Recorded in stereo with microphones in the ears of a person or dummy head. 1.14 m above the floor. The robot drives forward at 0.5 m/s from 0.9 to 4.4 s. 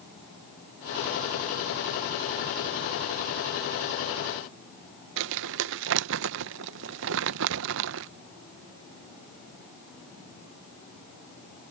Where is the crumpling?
60° right (ahead or behind).